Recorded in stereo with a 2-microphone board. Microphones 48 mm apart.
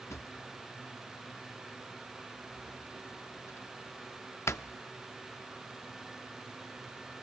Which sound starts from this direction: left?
A drawer, at 0.1 s.